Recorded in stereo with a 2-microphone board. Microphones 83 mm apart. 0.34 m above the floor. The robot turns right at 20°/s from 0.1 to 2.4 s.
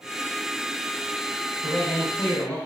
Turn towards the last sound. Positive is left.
turn(degrees=25)  # may be behind; listen again after turning